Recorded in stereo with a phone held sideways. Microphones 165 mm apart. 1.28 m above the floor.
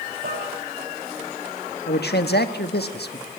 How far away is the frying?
I don't hear frying.